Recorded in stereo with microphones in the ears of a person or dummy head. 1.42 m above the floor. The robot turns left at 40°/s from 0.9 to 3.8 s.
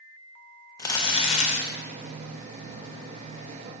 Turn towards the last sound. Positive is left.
turn(degrees=50)